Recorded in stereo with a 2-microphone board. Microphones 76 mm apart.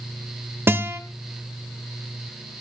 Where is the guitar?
30° right (ahead or behind), 1.4 m.